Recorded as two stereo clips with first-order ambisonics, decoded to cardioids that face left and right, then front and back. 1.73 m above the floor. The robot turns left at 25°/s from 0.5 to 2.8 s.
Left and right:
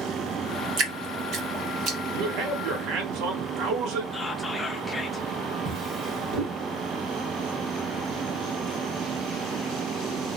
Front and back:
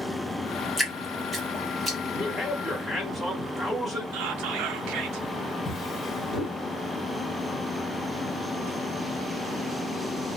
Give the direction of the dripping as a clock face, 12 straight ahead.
3 o'clock.